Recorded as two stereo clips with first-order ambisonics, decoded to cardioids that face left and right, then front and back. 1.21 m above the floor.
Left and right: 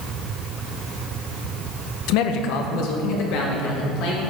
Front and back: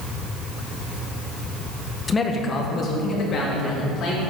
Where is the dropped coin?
I don't hear a dropped coin.